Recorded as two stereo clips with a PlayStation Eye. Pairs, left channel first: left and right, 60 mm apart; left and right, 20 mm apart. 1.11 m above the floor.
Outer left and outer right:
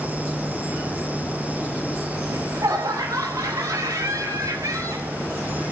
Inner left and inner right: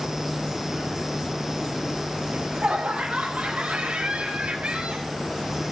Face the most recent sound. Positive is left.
turn(degrees=-75)  # may be behind; listen again after turning